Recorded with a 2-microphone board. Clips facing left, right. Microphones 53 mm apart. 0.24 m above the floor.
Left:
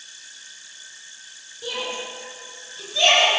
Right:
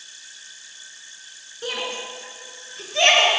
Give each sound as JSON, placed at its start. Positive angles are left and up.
{"t": 1.6, "sound": "a shout", "side_deg": -70, "distance_m": 3.0}